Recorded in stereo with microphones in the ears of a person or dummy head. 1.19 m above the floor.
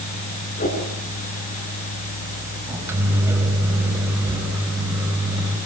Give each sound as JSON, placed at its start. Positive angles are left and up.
{"t": 0.6, "sound": "a whoosh", "side_deg": 40, "distance_m": 7.5}
{"t": 2.7, "sound": "a microwave", "side_deg": -15, "distance_m": 5.5}